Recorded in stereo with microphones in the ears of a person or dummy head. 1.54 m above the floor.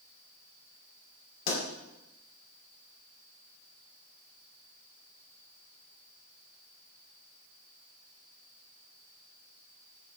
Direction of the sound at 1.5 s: 45° left (ahead or behind).